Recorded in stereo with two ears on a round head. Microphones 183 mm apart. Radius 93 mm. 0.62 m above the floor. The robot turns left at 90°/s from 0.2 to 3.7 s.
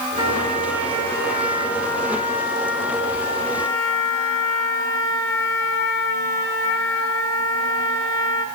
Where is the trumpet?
30° right, 4 m; by 8.4 s 15° left, 4 m.